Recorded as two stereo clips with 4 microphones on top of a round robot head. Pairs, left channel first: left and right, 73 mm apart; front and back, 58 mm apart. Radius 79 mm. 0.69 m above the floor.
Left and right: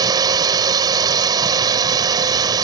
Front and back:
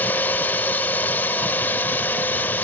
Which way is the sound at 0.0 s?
60° right.